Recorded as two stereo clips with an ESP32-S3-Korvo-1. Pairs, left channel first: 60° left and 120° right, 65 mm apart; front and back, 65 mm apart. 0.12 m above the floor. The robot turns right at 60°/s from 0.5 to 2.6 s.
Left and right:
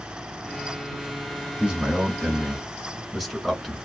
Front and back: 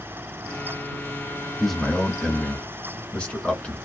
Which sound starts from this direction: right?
A man speaking, at 1.6 s.